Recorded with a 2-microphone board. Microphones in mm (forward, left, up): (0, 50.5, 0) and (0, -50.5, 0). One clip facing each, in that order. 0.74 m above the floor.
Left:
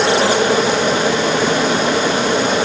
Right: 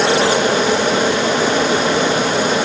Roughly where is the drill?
I don't hear a drill.